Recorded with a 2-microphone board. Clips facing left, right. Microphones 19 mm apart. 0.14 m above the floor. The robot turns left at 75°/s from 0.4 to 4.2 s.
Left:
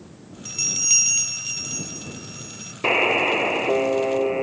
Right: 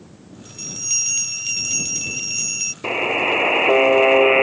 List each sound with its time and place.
0.5 s a bell: 55° left; by 2.7 s 115° right
2.8 s a buzzer: 25° left; by 4.5 s 80° right